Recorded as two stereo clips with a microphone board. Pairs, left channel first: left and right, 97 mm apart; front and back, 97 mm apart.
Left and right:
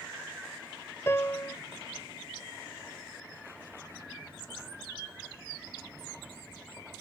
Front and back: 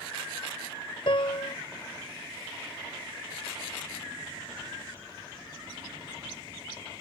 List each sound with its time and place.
1.1 s a piano: 25° left